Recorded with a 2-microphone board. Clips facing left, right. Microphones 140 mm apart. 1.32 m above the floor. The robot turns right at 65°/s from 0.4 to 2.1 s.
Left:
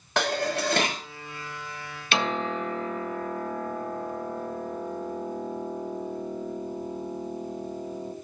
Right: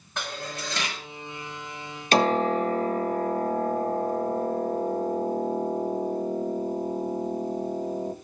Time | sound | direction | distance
0.2 | dishes clattering | 105° left | 1.9 m
2.1 | a piano | 40° right (ahead or behind) | 1.5 m